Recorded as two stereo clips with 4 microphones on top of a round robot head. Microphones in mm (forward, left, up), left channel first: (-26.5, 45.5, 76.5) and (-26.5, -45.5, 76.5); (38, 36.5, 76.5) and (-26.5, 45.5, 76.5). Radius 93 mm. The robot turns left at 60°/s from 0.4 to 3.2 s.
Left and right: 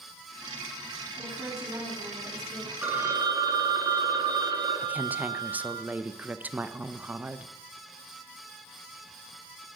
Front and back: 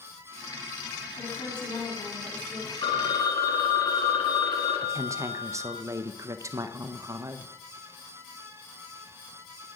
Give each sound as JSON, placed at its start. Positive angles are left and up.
{"t": 1.2, "sound": "a woman speaking", "azimuth_deg": 5, "distance_m": 8.5}
{"t": 2.8, "sound": "a phone ringing", "azimuth_deg": -15, "distance_m": 1.5}
{"t": 4.8, "sound": "a woman speaking", "azimuth_deg": -160, "distance_m": 1.1}